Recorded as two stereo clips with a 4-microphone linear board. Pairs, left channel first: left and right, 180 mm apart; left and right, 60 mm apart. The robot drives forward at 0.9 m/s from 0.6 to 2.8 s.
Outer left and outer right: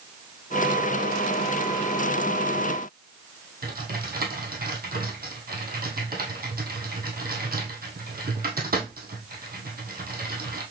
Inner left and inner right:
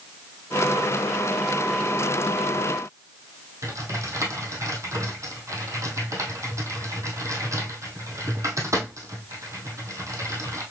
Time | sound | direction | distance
3.6 | typing on a keyboard | 60° right (ahead or behind) | 1.9 m